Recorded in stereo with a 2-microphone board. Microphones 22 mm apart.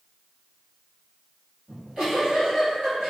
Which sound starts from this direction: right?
A giggle, at 1.7 s.